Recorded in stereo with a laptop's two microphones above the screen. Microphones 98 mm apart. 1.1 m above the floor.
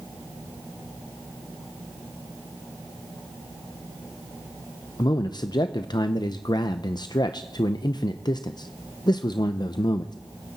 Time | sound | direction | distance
5.0 | a man speaking | 45° left (ahead or behind) | 0.6 m